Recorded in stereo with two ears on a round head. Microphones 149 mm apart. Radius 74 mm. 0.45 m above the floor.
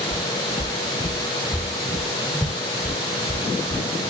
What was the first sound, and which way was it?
Footsteps, 35° left (ahead or behind).